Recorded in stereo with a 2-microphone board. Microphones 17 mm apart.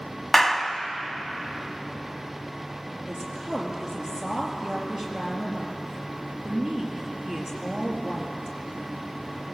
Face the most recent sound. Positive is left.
turn(degrees=-35)  # may be behind; listen again after turning